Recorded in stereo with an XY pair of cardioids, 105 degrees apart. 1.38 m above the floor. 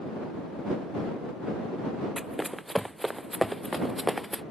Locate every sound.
2.2 s running footsteps: 5° right; by 4.4 s straight ahead